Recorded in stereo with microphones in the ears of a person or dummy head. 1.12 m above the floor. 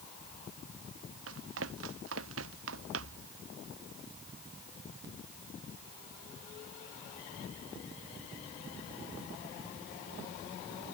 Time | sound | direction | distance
1.3 | running footsteps | 85° right | ?